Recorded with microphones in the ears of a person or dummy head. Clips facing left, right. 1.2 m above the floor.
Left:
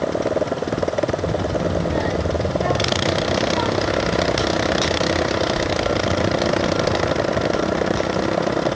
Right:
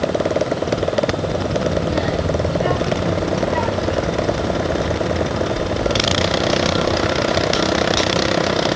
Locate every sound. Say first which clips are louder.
1.2 s a child speaking: right 1 dB; 5° left (ahead or behind), 5 m; by 7.1 s 5° right (ahead or behind), 10.5 m